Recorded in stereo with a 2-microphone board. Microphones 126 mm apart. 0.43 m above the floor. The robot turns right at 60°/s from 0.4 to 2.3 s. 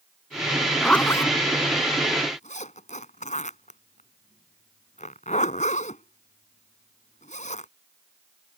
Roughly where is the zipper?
Centre.